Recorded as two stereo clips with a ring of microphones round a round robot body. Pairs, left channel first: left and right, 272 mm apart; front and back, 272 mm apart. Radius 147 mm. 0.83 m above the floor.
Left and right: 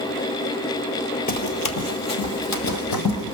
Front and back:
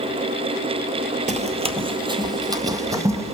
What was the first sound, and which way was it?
Running footsteps, 130° left.